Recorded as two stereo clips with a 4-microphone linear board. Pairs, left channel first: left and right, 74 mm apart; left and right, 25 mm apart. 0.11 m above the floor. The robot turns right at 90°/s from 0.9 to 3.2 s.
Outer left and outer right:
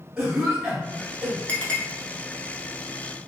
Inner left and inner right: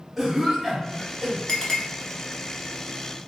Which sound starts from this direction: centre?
A cough, at 0.2 s.